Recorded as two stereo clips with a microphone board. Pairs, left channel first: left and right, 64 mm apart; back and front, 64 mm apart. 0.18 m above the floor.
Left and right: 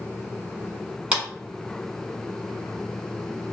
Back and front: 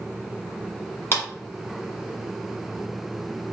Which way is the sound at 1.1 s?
150° right.